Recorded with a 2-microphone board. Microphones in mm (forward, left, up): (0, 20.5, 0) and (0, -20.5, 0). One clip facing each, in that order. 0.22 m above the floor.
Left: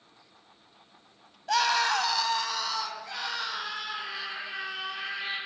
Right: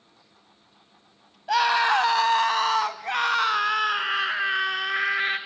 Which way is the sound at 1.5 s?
10° right (ahead or behind).